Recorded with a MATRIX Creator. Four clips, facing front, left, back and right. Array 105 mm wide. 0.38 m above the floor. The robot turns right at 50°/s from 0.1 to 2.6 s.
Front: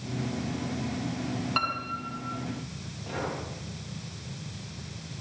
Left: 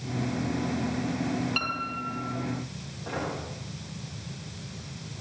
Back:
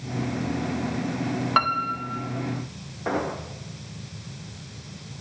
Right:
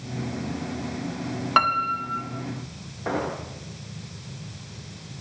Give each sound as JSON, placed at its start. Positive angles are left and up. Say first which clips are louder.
{"t": 1.6, "sound": "a piano", "louder": "right 10 dB, back 8 dB", "azimuth_deg": -125, "distance_m": 3.0}
{"t": 3.0, "sound": "an explosion", "louder": "right 6 dB, back 7 dB", "azimuth_deg": -145, "distance_m": 10.0}